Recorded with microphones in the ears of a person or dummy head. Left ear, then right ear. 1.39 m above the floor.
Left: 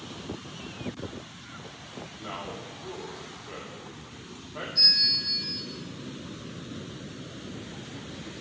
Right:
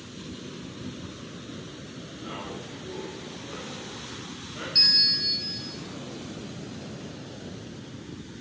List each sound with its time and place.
2.2 s a man speaking: 30° left (ahead or behind), 3 m
4.8 s a bell: 25° right (ahead or behind), 1.1 m